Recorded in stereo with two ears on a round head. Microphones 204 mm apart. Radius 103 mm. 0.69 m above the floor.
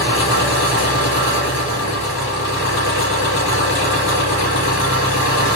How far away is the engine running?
About 2.5 m.